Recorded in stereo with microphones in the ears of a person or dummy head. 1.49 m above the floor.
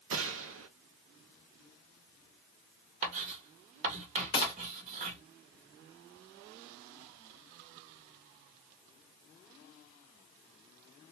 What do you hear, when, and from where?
0.1 s a gunshot: 70° right (ahead or behind), 0.5 m
3.0 s writing: 35° right (ahead or behind), 1.0 m
4.3 s a gunshot: 20° left (ahead or behind), 0.7 m